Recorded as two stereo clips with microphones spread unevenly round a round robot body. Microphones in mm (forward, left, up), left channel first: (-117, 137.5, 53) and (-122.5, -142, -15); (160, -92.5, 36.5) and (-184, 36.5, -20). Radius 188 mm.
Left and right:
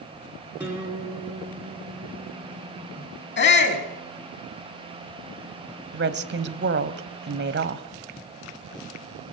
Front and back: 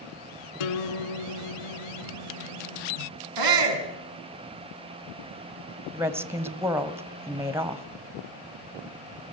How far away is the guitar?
About 3 m.